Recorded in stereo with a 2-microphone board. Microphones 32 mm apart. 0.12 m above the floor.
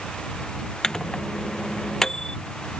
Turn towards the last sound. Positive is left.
turn(degrees=20)  # may be behind; listen again after turning